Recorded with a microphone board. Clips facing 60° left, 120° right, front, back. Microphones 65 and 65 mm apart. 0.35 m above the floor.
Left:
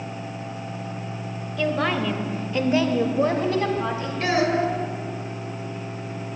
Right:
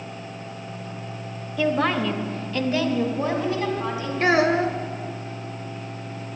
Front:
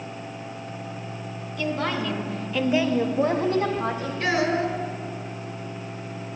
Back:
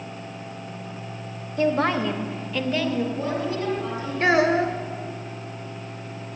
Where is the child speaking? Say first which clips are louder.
Right 3 dB, back 4 dB; 155° right, 1.1 m.